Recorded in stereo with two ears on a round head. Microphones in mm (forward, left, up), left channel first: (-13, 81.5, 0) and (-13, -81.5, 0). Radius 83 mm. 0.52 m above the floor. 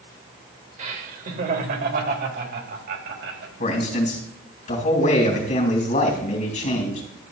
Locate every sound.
0.8 s laughter: 40° right (ahead or behind), 1.8 m; by 3.5 s 70° right (ahead or behind), 3 m
3.6 s a man speaking: 45° left (ahead or behind), 3.5 m